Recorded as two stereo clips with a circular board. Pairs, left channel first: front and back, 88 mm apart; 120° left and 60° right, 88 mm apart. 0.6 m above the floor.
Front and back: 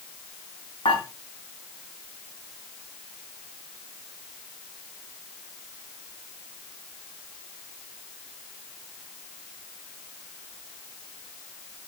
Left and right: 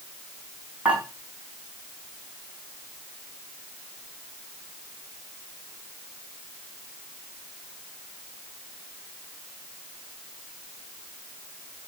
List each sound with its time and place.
0.8 s dishes clattering: 15° left, 4.5 m